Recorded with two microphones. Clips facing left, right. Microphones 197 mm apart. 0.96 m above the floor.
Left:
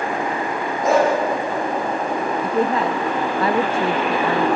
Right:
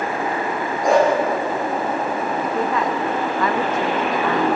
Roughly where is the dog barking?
Centre.